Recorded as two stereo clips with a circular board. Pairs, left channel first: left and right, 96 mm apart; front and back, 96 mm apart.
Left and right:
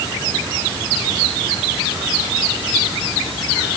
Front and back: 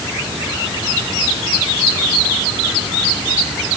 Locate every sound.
Only background noise.